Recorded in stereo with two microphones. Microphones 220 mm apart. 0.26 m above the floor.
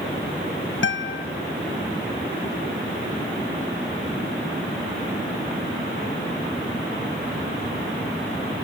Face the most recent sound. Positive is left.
turn(degrees=60)  # may be behind; listen again after turning